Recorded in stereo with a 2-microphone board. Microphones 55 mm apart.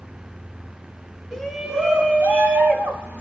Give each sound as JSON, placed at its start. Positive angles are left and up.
{"t": 1.3, "sound": "a shout", "side_deg": 5, "distance_m": 1.6}